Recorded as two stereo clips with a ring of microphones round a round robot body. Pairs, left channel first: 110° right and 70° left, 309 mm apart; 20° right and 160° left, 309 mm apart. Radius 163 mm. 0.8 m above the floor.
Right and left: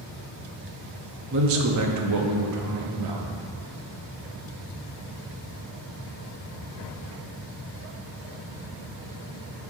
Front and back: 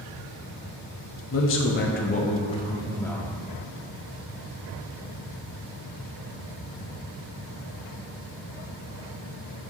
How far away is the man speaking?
About 1.0 m.